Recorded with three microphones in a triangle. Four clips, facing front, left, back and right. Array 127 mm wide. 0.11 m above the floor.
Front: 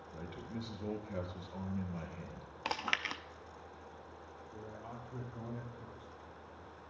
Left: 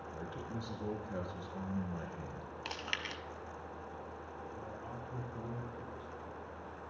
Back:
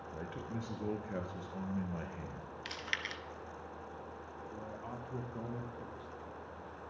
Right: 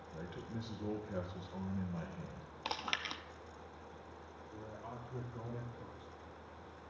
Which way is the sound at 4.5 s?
175° right.